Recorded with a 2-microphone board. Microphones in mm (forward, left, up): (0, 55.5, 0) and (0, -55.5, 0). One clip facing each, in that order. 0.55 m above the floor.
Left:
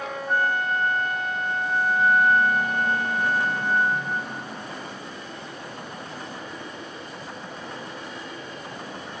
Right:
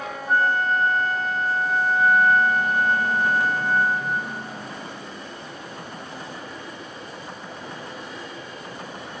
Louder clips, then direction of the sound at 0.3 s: Right 3 dB; 35° right (ahead or behind).